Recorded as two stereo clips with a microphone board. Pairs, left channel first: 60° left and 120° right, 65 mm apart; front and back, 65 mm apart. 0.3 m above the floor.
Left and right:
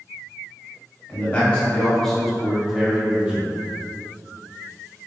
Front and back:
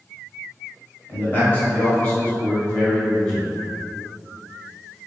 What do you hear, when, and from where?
1.1 s a man speaking: 25° left, 1.4 m; by 3.5 s 70° right, 1.4 m